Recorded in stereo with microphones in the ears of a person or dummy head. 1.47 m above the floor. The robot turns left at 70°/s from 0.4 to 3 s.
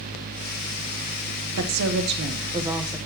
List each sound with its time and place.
1.6 s a woman speaking: 85° right, 1.0 m; by 3.0 s 175° left, 1.0 m